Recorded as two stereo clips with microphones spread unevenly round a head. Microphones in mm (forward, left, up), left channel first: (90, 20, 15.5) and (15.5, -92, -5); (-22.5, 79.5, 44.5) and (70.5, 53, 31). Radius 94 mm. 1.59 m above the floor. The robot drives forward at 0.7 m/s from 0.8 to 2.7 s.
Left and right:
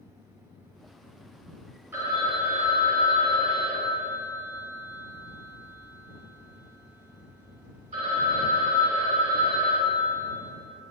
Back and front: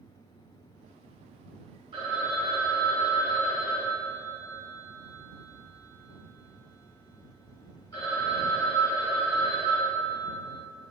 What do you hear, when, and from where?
1.9 s a phone ringing: 50° right, 0.5 m; by 10.3 s 145° right, 0.6 m